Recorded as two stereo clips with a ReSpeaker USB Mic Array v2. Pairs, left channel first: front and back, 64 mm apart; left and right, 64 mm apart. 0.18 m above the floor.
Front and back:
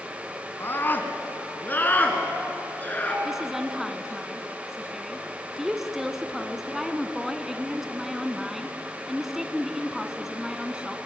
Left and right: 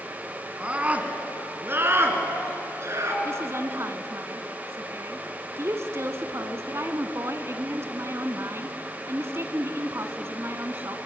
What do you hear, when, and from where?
0.6 s a scream: 30° right, 2 m; by 3.1 s 60° right, 3 m
3.2 s a woman speaking: 95° right, 1.4 m